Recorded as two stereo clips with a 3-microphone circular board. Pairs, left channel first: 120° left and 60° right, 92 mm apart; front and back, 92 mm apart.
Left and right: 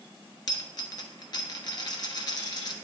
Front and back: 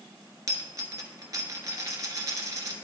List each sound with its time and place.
0.5 s a dropped coin: 140° left, 1.2 m